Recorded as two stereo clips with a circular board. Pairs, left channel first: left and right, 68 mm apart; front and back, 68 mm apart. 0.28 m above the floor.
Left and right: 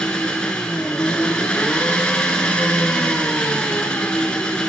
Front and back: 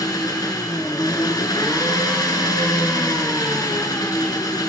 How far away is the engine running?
About 0.9 m.